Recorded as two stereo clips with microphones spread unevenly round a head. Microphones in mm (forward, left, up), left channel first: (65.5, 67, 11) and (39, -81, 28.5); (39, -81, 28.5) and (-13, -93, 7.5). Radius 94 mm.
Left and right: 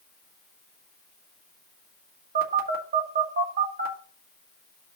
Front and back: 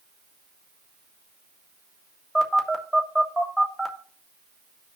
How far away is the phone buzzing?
About 1.7 m.